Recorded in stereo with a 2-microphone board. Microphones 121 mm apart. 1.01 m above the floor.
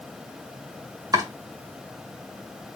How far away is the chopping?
About 1.7 m.